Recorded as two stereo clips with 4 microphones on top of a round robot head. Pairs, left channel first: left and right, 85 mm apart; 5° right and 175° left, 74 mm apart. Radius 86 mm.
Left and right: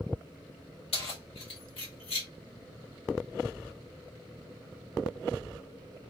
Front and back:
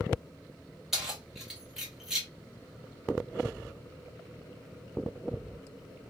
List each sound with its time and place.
0.9 s keys jangling: 90° left, 1.7 m